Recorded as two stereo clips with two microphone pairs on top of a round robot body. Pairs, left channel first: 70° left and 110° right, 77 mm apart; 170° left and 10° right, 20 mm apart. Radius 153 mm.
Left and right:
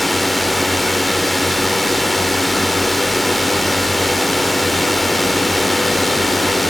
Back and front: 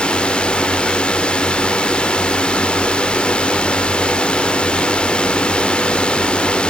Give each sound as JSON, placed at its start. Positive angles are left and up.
{"t": 0.0, "sound": "a drone", "azimuth_deg": 155}